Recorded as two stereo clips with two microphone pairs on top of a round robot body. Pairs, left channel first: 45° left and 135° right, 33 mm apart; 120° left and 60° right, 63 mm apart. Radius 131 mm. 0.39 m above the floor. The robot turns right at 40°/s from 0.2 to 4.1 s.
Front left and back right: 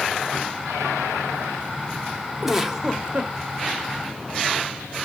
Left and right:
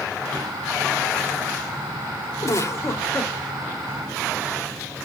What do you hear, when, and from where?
2.4 s a giggle: 150° left, 1.7 m; by 3.3 s 175° right, 1.7 m